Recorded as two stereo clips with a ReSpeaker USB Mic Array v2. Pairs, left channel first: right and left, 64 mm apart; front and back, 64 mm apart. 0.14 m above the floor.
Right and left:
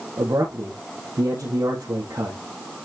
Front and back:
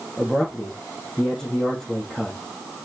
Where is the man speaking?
85° left, 3.5 m.